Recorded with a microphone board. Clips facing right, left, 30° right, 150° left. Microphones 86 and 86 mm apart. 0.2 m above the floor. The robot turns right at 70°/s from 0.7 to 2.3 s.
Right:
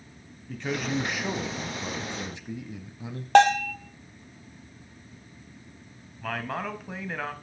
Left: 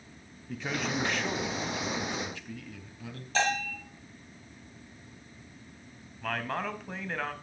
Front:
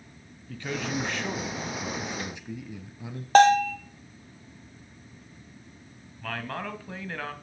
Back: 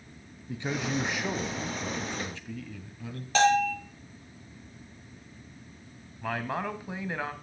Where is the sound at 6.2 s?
170° right, 1.0 m.